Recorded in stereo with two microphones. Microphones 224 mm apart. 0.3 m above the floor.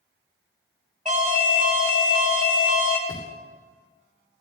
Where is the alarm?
35° right (ahead or behind), 1.7 m.